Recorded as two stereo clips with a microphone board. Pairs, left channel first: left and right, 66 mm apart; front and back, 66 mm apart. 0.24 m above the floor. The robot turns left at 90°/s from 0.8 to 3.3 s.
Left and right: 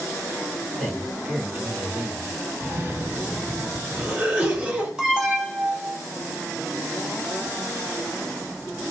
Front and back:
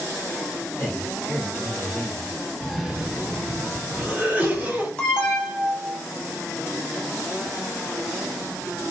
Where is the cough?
75° right, 1.3 m; by 4.9 s 140° right, 1.3 m.